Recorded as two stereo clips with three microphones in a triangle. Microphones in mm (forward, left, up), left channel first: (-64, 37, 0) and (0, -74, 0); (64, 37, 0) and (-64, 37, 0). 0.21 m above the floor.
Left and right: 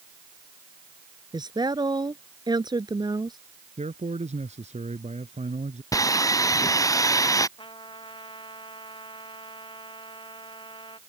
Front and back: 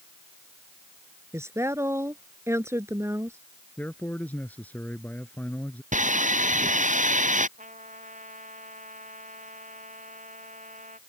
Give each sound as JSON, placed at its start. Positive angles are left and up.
{"t": 1.3, "sound": "a woman speaking", "azimuth_deg": -115}
{"t": 3.8, "sound": "a man speaking", "azimuth_deg": -75}
{"t": 5.9, "sound": "sawing", "azimuth_deg": -175}
{"t": 7.6, "sound": "a trumpet", "azimuth_deg": 170}